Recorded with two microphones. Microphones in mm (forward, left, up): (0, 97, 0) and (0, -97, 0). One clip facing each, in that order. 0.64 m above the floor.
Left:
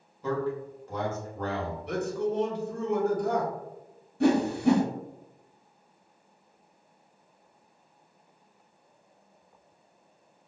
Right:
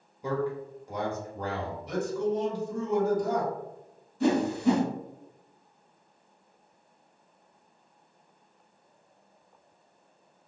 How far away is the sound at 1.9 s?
About 1.1 m.